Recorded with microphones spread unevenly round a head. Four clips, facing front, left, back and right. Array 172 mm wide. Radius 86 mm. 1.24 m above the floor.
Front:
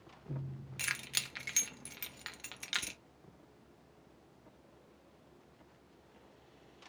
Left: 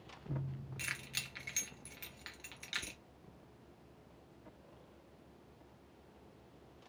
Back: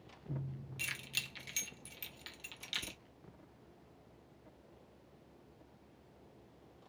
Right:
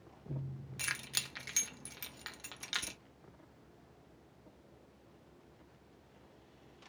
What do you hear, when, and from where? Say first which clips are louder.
0.8 s keys jangling: right 6 dB, front 7 dB; 45° right, 0.7 m